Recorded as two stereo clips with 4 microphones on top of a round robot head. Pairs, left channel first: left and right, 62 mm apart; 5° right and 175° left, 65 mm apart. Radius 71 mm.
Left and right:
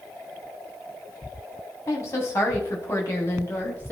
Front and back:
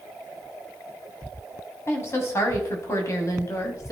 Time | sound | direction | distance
1.9 | a woman speaking | 40° left | 5 m